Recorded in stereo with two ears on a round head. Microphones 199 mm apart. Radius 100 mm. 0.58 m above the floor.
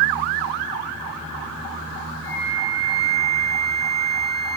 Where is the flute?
20° right (ahead or behind), 1.9 m.